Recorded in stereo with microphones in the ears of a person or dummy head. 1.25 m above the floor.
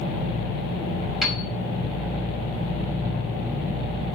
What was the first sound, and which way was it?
A piano, 5° left (ahead or behind).